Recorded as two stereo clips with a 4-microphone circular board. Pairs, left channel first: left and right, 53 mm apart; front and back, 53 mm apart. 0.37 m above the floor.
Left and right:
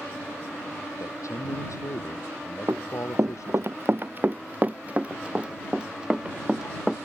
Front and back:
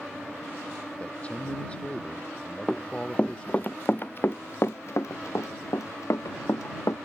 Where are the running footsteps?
70° right; by 7.0 s 10° right.